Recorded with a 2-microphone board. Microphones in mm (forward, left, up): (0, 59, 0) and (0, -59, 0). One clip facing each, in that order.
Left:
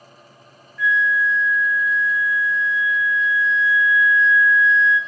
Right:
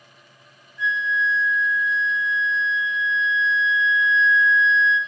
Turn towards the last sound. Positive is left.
turn(degrees=-25)  # may be behind; listen again after turning